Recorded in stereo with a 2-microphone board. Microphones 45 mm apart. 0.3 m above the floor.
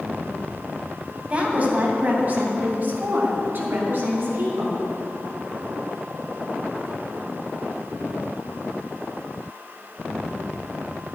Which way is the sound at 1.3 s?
30° right (ahead or behind).